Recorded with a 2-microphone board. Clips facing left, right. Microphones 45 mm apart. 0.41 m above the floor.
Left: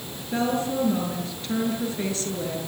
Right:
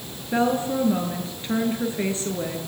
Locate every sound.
0.3 s a woman speaking: 25° right (ahead or behind), 7.5 m